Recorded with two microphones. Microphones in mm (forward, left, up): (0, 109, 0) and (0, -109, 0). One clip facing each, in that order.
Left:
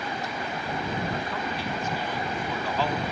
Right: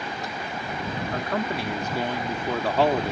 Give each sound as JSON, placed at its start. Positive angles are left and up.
{"t": 1.1, "sound": "a man speaking", "side_deg": -60}